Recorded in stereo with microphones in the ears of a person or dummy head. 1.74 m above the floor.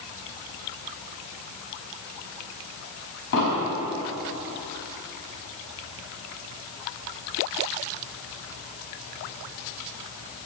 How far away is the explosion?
About 4.5 m.